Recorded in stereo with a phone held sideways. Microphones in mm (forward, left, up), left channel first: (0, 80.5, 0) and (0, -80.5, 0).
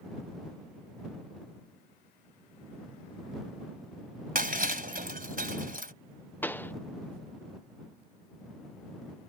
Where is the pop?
10° left (ahead or behind).